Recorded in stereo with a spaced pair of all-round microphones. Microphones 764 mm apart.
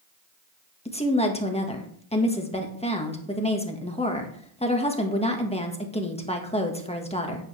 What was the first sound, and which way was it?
A woman speaking, 10° left (ahead or behind).